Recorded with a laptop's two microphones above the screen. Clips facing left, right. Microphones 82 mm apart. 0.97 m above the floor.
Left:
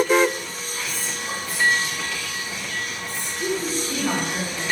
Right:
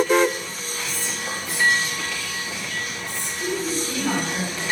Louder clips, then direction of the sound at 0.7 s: Right 1 dB; 80° right.